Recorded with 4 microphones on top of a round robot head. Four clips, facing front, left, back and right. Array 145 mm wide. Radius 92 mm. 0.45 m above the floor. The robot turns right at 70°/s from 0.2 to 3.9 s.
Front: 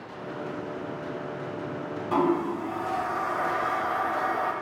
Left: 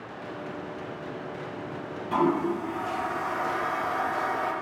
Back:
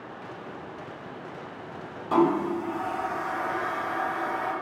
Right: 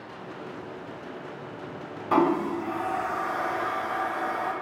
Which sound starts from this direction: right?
A toilet flushing, at 2.1 s.